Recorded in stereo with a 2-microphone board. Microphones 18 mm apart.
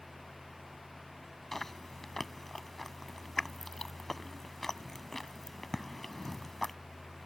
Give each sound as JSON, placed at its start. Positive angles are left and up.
{"t": 1.5, "sound": "chewing", "side_deg": 20}